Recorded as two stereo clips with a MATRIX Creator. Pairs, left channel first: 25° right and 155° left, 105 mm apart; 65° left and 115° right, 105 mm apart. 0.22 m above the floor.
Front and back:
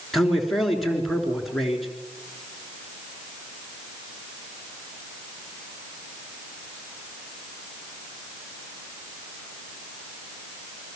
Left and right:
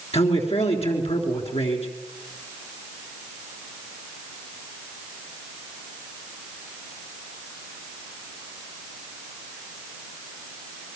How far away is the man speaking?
About 3.5 m.